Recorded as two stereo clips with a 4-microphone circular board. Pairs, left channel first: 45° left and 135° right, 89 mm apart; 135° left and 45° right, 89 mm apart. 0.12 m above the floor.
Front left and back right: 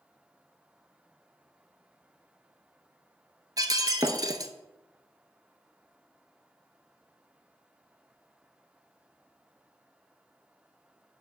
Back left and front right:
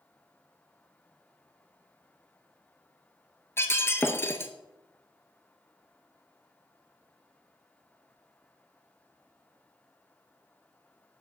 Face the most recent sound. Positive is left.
turn(degrees=-170)